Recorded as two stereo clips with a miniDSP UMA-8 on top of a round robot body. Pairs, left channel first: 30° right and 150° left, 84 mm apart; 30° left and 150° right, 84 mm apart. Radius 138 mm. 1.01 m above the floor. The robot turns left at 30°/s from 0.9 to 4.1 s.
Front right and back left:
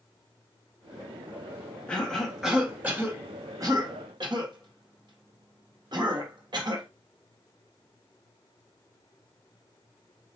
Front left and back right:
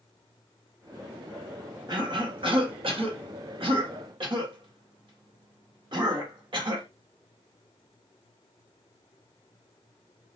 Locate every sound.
1.9 s a cough: 110° right, 1.9 m; by 6.9 s 175° right, 1.9 m